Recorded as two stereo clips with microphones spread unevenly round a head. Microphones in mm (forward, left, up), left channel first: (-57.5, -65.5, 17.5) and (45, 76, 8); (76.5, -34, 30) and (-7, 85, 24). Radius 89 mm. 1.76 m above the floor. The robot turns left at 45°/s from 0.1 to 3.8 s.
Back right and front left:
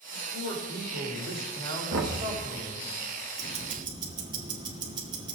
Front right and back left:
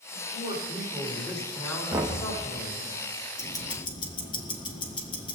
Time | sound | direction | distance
0.1 | a man speaking | 90° left | 5.5 m
1.9 | knocking | 55° left | 1.7 m
3.4 | ticking | 10° left | 1.6 m